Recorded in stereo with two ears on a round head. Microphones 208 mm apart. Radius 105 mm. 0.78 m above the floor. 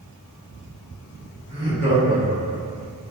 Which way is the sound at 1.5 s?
35° right (ahead or behind).